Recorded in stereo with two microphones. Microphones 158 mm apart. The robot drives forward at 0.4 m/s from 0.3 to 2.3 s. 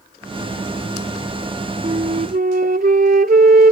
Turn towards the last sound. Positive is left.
turn(degrees=-65)  # may be behind; listen again after turning